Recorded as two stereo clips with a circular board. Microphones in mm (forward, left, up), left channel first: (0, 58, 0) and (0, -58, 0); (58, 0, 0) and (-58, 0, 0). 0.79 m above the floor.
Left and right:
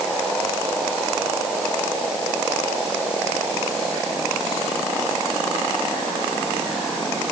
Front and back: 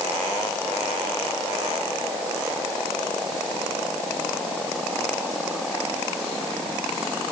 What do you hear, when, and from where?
Only background noise.